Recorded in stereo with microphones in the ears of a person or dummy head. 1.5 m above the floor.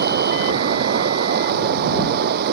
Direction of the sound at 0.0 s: 55° right (ahead or behind).